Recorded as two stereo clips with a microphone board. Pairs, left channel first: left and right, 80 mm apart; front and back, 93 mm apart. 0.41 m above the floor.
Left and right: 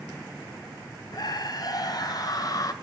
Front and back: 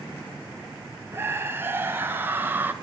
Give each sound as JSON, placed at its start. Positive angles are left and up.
{"t": 1.1, "sound": "a scream", "azimuth_deg": 115, "distance_m": 3.0}